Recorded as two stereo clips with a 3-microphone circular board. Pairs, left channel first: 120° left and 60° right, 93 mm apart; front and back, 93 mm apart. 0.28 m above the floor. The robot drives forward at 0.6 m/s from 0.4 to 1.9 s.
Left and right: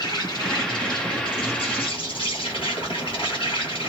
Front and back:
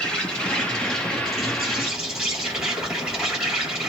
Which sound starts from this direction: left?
An insect, at 0.0 s.